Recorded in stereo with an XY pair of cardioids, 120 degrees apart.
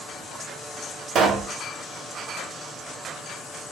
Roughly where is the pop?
Ahead right.